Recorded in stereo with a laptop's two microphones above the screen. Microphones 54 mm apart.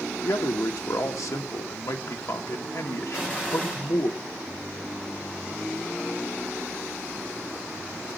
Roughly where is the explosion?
Left.